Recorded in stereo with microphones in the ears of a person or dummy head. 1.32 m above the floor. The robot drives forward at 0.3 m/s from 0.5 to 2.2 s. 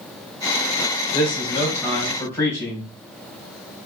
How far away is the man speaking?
About 1.9 m.